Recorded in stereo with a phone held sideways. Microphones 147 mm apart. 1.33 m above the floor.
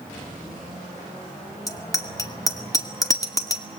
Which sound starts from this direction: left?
A bicycle bell, at 1.7 s.